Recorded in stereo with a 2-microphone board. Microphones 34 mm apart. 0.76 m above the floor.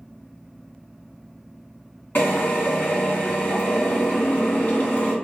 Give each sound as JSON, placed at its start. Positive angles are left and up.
{"t": 2.1, "sound": "a drill", "side_deg": 65, "distance_m": 1.7}